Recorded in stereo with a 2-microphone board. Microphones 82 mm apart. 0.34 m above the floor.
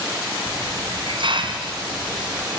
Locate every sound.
0.5 s a hiss: 70° right (ahead or behind), 2.5 m